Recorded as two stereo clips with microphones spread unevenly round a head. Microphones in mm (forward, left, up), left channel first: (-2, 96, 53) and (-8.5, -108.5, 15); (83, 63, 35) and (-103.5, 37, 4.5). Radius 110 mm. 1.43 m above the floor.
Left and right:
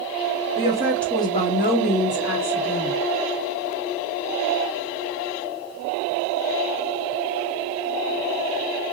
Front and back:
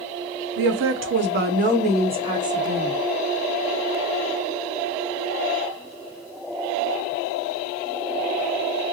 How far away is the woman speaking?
About 0.6 m.